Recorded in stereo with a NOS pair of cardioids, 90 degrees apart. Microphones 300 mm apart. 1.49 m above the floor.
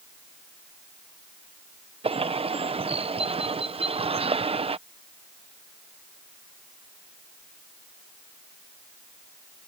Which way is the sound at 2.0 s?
20° right.